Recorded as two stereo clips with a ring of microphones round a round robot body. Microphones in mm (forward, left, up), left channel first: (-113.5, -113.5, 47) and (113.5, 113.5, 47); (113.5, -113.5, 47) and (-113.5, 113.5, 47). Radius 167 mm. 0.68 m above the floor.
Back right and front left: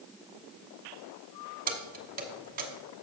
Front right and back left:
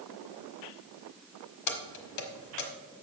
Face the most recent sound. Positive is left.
turn(degrees=-15)